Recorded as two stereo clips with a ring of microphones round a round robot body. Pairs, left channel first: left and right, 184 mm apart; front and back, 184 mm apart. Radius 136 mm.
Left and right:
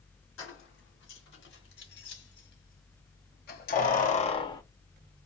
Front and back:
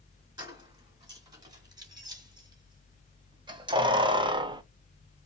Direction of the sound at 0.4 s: 110° left.